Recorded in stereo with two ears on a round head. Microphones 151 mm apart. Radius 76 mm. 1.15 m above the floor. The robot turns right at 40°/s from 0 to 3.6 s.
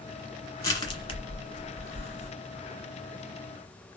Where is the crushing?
20° left (ahead or behind), 1.3 m; by 2.3 s 40° left (ahead or behind), 1.3 m.